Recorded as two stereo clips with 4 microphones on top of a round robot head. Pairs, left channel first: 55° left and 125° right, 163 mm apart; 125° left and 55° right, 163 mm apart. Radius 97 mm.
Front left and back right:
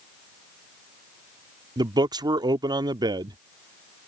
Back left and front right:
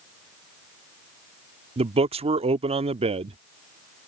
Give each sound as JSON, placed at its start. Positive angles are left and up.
{"t": 1.8, "sound": "a man speaking", "azimuth_deg": -75}